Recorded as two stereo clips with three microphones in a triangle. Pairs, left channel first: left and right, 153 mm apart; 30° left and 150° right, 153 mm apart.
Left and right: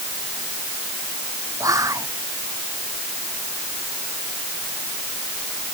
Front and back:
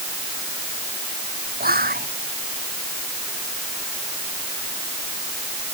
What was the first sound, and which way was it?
Whispering, 160° right.